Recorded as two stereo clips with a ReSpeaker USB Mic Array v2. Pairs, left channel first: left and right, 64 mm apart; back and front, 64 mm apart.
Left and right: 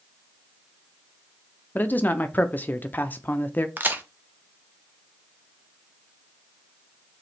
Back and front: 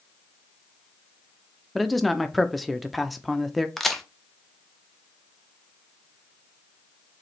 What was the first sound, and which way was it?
A man speaking, 90° left.